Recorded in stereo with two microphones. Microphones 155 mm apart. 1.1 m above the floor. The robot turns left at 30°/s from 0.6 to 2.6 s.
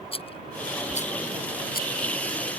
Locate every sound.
0.1 s a rattle: 40° left (ahead or behind); by 1.9 s 75° left (ahead or behind)